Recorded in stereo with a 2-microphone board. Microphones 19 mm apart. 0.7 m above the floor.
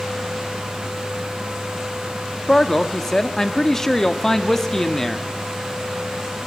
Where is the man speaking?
20° left (ahead or behind), 1.4 m.